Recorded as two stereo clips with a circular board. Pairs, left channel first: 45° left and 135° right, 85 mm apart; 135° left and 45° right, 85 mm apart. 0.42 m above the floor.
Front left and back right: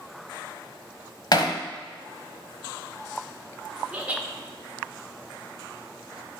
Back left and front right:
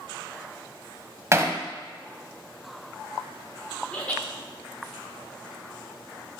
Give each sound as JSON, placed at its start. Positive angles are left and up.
{"t": 1.3, "sound": "hammering", "azimuth_deg": 10, "distance_m": 0.7}
{"t": 3.9, "sound": "laughter", "azimuth_deg": 180, "distance_m": 0.8}